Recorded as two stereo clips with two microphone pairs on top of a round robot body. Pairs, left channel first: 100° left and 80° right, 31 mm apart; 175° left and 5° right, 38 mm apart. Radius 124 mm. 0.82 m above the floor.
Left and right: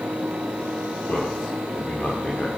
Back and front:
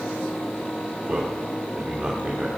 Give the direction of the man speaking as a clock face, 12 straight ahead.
10 o'clock.